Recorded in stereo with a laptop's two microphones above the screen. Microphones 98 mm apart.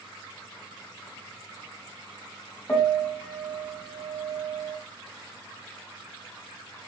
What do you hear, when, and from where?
2.7 s a piano: 25° left (ahead or behind), 0.8 m